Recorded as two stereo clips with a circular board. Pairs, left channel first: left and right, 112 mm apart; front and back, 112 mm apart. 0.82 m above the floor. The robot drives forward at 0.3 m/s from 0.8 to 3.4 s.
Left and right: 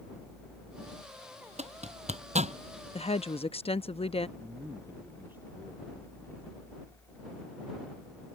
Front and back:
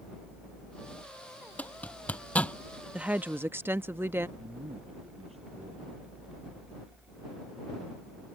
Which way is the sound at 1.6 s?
80° right.